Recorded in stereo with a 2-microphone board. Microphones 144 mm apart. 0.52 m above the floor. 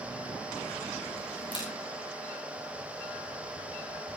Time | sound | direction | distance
1.5 | a camera shutter | 35° left (ahead or behind) | 8.5 m